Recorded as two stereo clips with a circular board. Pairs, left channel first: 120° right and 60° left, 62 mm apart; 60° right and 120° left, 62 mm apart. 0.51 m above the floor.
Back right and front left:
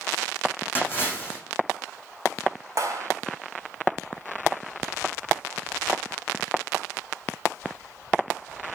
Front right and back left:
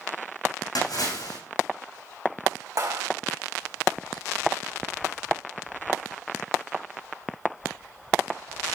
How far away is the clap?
About 3 m.